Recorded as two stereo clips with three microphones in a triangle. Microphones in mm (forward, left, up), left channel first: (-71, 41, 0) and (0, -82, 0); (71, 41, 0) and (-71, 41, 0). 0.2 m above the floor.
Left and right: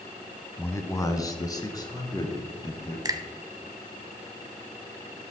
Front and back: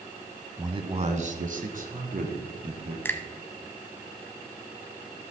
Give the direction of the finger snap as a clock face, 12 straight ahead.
2 o'clock.